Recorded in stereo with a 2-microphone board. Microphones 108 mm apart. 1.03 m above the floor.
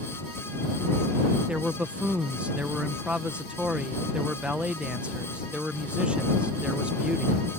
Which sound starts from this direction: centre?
A man speaking, at 1.5 s.